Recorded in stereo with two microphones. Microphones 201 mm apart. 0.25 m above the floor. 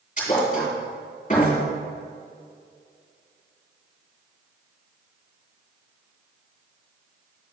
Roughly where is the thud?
Left.